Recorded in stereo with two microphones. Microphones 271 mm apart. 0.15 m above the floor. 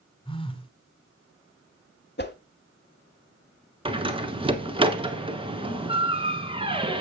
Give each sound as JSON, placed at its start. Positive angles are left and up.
{"t": 0.2, "sound": "a phone buzzing", "side_deg": 20, "distance_m": 1.7}
{"t": 2.2, "sound": "a whoosh", "side_deg": 40, "distance_m": 0.8}
{"t": 3.9, "sound": "a door slam", "side_deg": -20, "distance_m": 1.3}